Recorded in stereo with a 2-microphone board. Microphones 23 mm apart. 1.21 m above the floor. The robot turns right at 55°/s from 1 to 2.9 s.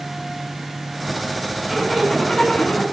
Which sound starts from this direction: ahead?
A zipper, at 1.7 s.